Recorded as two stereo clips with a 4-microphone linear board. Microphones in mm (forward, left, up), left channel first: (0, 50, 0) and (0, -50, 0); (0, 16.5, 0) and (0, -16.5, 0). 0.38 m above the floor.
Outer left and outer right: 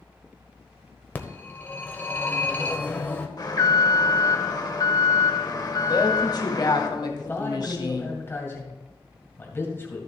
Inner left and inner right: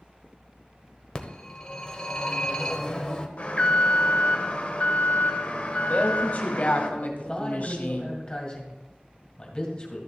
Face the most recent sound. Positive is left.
turn(degrees=25)  # may be behind; listen again after turning